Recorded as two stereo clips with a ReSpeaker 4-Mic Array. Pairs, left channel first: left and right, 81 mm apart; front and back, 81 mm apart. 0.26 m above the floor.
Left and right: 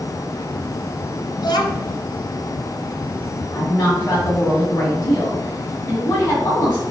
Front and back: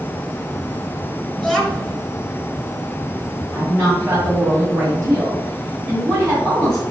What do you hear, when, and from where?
1.4 s a child speaking: 95° left, 1.1 m
3.5 s a woman speaking: 140° left, 2 m